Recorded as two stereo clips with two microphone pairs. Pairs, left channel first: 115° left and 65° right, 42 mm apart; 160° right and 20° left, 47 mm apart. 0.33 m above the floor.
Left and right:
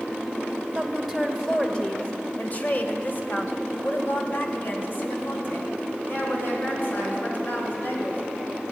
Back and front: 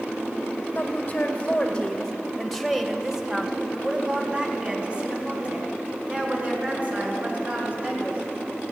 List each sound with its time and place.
0.8 s a woman speaking: 145° right, 1.1 m; by 8.2 s 75° left, 4 m